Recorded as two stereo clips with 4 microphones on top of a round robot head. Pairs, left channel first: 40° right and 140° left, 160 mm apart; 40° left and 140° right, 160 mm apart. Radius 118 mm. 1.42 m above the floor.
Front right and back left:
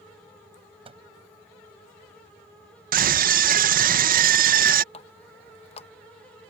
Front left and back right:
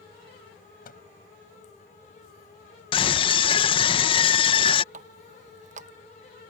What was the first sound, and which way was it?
A microwave, 80° left.